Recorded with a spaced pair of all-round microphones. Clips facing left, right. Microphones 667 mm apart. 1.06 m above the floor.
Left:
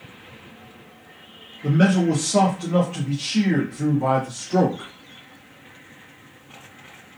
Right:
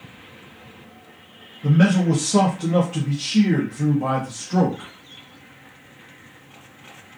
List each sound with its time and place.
1.6 s a man speaking: 25° right (ahead or behind), 0.7 m; by 4.9 s 30° right (ahead or behind), 1.4 m